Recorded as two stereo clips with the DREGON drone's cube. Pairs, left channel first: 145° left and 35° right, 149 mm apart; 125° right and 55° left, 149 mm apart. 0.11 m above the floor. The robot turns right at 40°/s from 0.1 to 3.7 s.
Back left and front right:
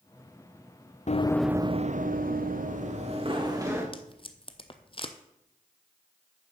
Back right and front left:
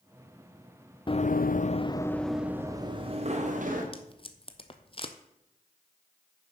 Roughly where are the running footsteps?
Behind.